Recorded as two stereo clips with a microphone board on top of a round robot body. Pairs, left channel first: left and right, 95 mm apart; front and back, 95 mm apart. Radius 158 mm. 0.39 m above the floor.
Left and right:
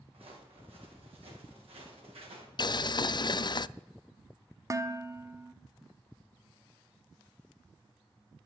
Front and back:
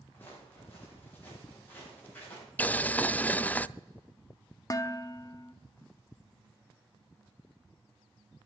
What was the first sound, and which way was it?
Footsteps, 70° right.